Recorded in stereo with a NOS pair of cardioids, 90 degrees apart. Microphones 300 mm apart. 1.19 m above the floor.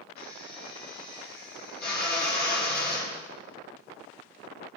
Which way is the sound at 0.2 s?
35° left.